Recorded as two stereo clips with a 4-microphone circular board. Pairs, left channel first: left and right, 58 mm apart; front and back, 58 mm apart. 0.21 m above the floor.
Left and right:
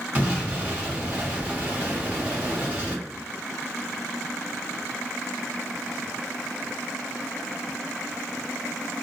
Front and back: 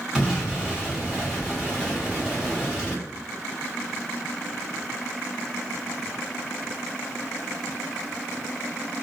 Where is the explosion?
115° right, 1.3 m.